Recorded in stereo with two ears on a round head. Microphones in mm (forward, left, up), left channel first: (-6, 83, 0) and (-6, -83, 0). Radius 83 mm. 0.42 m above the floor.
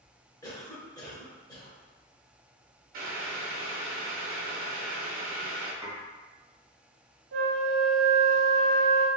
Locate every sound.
0.4 s a cough: 20° left (ahead or behind), 1.0 m
2.9 s boiling: 50° right (ahead or behind), 0.7 m
5.8 s dishes clattering: 20° right (ahead or behind), 1.4 m
7.3 s a flute: 75° right (ahead or behind), 0.8 m